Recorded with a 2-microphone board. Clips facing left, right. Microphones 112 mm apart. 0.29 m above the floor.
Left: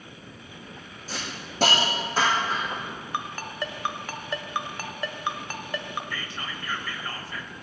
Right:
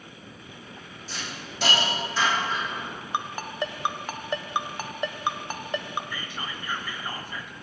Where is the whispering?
15° right (ahead or behind), 1.1 m.